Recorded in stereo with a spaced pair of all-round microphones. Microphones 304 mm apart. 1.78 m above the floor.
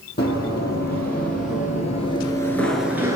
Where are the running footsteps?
35° left (ahead or behind), 4 m; by 3.2 s 10° right (ahead or behind), 1.7 m.